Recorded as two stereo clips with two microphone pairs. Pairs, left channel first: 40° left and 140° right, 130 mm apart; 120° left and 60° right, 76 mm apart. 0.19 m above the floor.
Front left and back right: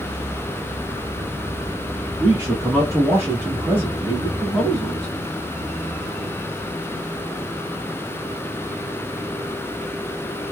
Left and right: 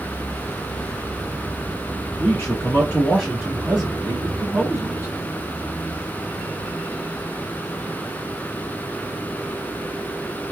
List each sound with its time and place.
2.2 s a man speaking: 175° left, 1.7 m; by 5.1 s 45° right, 1.6 m